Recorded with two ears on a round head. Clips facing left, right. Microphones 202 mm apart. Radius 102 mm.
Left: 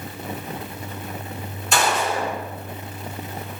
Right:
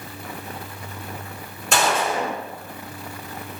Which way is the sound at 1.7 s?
45° right (ahead or behind).